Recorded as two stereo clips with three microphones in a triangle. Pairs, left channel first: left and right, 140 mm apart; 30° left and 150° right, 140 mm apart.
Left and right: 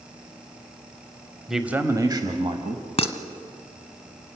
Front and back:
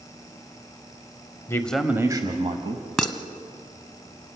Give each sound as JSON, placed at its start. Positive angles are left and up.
{"t": 1.5, "sound": "a man speaking", "azimuth_deg": -5, "distance_m": 1.1}
{"t": 3.0, "sound": "dishes clattering", "azimuth_deg": 115, "distance_m": 1.1}